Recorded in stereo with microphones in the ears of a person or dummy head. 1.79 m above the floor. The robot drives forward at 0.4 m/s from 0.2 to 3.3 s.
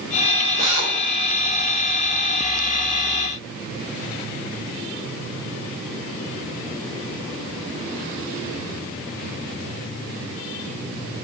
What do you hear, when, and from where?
0.6 s a drill: 45° left (ahead or behind), 6 m